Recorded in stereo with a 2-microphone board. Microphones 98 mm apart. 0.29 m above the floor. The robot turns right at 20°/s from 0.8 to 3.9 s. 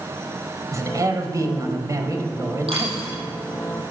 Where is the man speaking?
110° right, 1.0 m; by 3.2 s 60° right, 1.0 m.